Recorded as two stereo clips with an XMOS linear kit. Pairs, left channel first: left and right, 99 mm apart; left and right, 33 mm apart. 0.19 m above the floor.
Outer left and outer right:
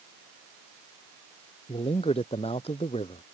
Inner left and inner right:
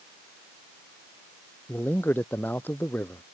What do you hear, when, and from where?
1.7 s a man speaking: 80° left